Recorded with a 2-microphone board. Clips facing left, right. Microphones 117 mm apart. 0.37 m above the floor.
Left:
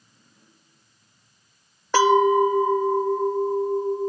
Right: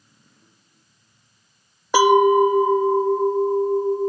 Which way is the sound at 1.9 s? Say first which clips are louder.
Right 3 dB; 15° right (ahead or behind).